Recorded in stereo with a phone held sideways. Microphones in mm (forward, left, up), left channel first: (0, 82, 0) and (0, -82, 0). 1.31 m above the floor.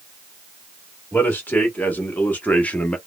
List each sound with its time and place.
1.1 s a man speaking: 10° left (ahead or behind), 1.8 m; by 3.0 s 5° left (ahead or behind), 0.8 m